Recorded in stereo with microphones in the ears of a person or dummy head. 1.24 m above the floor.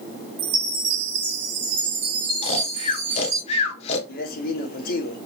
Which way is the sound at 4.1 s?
45° left (ahead or behind).